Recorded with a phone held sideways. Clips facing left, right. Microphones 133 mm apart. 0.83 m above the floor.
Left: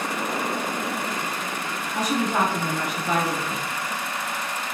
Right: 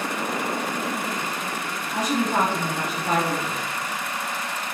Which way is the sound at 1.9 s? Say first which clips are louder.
Right 1 dB; 35° right (ahead or behind).